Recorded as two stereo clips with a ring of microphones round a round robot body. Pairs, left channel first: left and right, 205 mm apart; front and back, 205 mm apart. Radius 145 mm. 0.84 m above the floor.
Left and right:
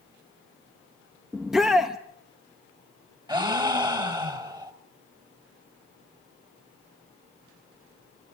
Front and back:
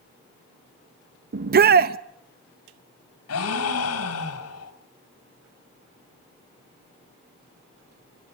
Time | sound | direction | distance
1.3 | a shout | 175° right | 0.5 m
3.3 | a gasp | 20° right | 3.5 m